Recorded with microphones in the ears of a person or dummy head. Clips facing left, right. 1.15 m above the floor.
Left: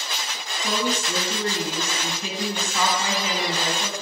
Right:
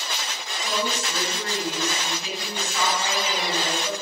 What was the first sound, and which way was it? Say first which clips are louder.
A woman speaking: left 2 dB; 45° left (ahead or behind).